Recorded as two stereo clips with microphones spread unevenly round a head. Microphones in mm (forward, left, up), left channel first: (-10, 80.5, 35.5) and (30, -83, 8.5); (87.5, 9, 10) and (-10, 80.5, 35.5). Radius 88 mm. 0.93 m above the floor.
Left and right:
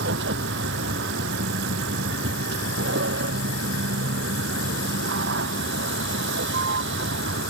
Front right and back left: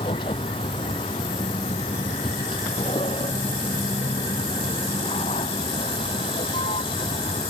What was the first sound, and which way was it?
A vehicle, 100° right.